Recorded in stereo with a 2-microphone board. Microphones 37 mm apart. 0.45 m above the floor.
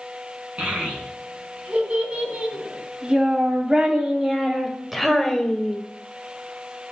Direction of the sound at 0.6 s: 35° right (ahead or behind).